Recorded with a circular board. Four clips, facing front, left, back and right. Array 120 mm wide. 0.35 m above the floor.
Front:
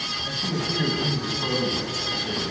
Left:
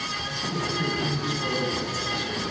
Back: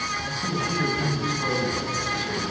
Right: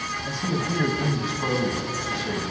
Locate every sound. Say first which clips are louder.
0.3 s a man speaking: right 3 dB, front 2 dB; 85° right, 2 m